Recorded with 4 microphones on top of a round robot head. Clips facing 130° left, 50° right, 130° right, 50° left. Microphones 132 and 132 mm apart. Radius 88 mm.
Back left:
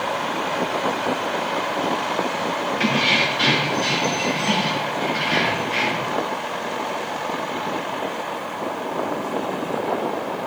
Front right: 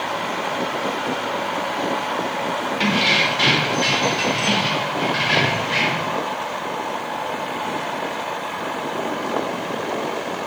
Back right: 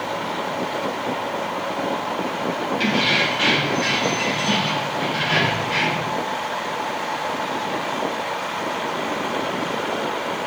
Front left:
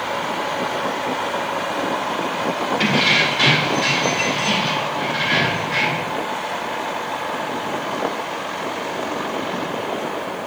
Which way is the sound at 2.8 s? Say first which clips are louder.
Front right 1 dB, front left 2 dB; 10° left.